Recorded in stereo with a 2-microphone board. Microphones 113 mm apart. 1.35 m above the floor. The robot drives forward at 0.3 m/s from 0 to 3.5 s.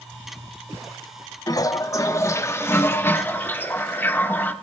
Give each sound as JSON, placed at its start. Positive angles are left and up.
{"t": 1.5, "sound": "a toilet flushing", "side_deg": 35, "distance_m": 0.5}